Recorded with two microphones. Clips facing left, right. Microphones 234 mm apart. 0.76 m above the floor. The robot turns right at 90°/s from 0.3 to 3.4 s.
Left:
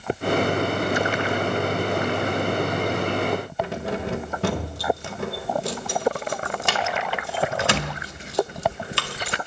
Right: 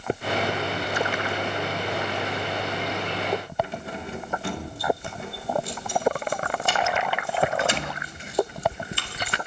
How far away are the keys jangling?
About 1.9 m.